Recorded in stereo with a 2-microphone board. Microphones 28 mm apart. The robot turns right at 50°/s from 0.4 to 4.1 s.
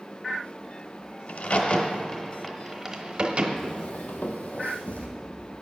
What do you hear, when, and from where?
1.3 s a crack: 65° left (ahead or behind), 0.8 m; by 3.5 s 40° right (ahead or behind), 0.8 m
3.6 s footsteps: 25° left (ahead or behind), 1.0 m; by 5.1 s 65° left (ahead or behind), 1.4 m